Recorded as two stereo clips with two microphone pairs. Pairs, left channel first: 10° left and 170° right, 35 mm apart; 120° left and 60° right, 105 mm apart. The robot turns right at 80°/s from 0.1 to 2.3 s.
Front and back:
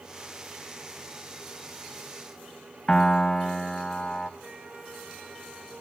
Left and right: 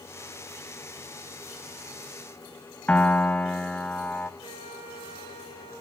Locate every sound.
2.9 s a piano: 65° left, 0.5 m
4.4 s a flute: 115° left, 4.5 m